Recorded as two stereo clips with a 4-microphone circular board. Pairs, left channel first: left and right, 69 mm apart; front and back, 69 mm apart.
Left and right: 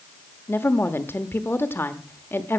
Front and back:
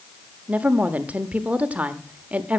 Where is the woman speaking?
125° left, 1.1 m.